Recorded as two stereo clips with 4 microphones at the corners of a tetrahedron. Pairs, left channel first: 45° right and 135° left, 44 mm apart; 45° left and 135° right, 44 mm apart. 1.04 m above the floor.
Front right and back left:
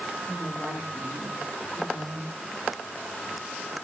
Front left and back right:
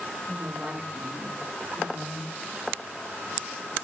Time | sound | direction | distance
0.3 | a woman speaking | 145° left | 1.4 m